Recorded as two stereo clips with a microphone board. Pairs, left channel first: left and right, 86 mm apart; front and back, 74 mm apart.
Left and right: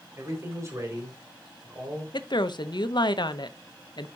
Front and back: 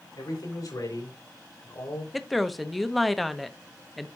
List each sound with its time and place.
0.2 s a man speaking: 30° right, 5.5 m; by 2.0 s 40° right, 4.5 m
2.1 s a woman speaking: 90° left, 0.8 m